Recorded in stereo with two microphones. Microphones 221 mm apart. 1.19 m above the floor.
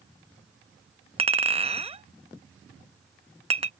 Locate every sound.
1.2 s a clink: 25° right (ahead or behind)